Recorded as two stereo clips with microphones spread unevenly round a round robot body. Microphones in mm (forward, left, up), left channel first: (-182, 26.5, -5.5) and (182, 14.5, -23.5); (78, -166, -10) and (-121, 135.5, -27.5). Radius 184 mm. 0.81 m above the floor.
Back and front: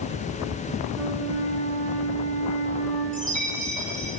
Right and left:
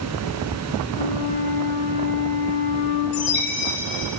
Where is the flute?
85° right, 4 m.